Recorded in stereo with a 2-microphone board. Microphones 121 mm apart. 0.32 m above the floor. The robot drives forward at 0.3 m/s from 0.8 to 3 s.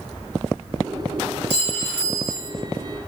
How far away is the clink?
About 1.1 m.